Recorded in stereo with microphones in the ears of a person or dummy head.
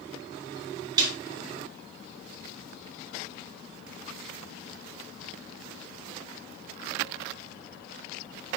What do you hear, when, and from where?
1.0 s a snare drum: 30° right (ahead or behind), 3.5 m